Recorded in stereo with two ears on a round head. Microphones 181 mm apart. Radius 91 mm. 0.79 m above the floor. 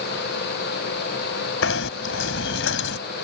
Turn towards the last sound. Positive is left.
turn(degrees=70)  # may be behind; listen again after turning